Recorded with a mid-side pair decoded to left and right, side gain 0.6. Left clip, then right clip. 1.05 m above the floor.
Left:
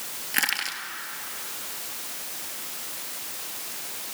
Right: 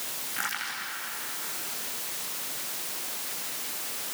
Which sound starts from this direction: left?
Crushing, at 0.3 s.